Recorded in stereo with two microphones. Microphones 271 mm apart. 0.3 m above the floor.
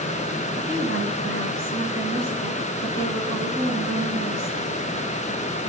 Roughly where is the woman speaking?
Right.